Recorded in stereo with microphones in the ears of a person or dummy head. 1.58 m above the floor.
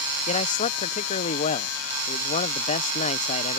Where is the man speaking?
35° left (ahead or behind).